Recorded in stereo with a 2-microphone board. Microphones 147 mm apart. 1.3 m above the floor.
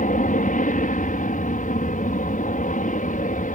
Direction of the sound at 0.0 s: 65° left (ahead or behind).